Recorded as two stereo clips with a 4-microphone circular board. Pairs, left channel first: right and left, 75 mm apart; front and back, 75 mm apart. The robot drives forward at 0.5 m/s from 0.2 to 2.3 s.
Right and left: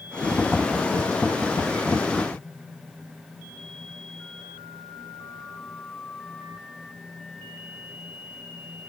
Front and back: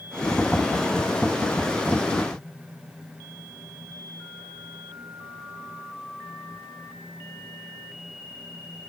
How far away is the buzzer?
No buzzer in this recording.